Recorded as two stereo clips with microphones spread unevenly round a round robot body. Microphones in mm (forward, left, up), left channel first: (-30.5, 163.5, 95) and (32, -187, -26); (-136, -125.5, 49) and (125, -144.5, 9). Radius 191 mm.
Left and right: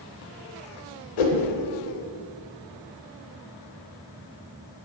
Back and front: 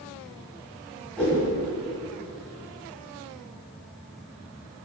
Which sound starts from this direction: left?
A whoosh, at 1.2 s.